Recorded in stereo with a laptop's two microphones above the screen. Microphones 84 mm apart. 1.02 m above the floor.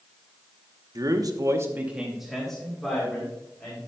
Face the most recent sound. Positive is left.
turn(degrees=15)  # may be behind; listen again after turning